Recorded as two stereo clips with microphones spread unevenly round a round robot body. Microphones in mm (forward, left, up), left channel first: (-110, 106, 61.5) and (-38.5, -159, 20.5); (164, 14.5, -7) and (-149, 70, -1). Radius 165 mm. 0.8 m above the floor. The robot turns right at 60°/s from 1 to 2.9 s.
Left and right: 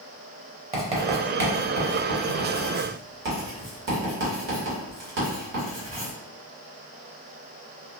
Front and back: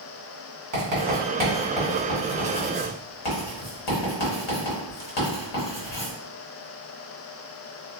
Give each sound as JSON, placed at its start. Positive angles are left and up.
{"t": 0.7, "sound": "writing", "azimuth_deg": -140, "distance_m": 1.2}